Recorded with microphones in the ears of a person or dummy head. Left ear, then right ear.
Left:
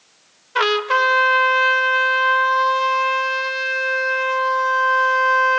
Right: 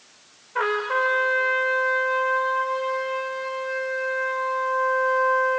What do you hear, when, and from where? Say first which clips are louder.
0.6 s a trumpet: left 6 dB; 75° left (ahead or behind), 1.0 m